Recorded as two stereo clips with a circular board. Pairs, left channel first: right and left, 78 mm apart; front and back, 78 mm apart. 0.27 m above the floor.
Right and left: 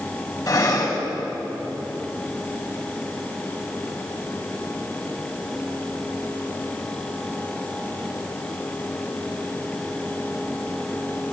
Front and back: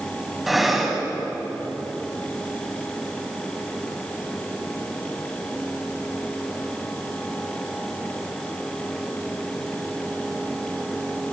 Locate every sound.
0.5 s breathing: 95° right, 1.9 m